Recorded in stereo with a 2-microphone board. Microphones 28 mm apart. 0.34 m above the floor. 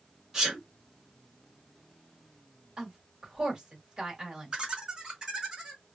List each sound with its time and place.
0.3 s a sneeze: 15° right (ahead or behind), 1.4 m
2.8 s a woman speaking: 30° right (ahead or behind), 1.6 m
4.5 s laughter: 30° right (ahead or behind), 1.4 m